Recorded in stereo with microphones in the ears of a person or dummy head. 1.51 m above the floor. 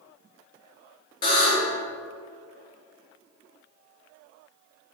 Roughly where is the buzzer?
Left.